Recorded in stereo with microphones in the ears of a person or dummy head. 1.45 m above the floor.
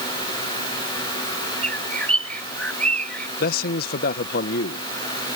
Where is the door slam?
No door slam in this recording.